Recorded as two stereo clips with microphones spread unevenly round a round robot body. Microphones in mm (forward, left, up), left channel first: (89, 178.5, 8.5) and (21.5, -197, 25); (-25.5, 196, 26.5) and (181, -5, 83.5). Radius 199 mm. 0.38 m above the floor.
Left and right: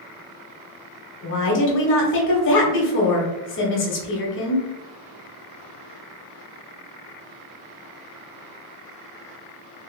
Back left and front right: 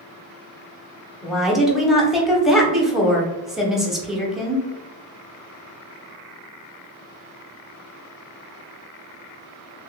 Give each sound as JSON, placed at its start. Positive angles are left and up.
{"t": 1.2, "sound": "a woman speaking", "azimuth_deg": 60, "distance_m": 1.0}